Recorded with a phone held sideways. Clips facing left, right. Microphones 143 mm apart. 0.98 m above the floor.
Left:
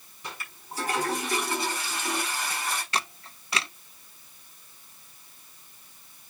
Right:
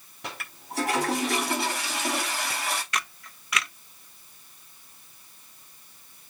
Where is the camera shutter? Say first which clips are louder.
Left 2 dB; 30° left (ahead or behind), 0.6 m.